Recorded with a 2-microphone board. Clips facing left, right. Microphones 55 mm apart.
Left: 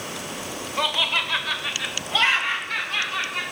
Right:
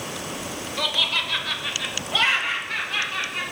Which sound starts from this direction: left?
Laughter, at 0.8 s.